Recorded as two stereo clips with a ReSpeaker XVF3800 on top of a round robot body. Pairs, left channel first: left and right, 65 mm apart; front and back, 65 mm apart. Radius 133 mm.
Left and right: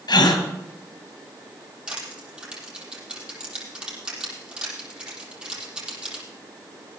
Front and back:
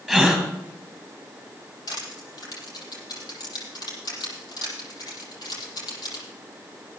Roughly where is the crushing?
Ahead.